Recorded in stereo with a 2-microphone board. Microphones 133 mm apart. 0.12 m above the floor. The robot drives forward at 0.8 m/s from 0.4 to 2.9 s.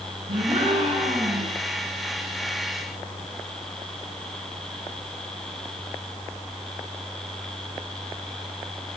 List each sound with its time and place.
0.3 s a gasp: 55° right (ahead or behind), 8 m; by 1.6 s 65° right (ahead or behind), 7.5 m